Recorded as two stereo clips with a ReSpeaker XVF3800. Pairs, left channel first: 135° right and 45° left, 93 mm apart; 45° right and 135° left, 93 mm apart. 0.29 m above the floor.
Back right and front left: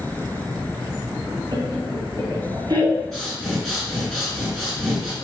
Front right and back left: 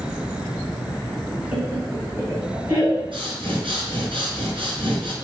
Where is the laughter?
65° left, 3.5 m; by 3.0 s 90° left, 3 m.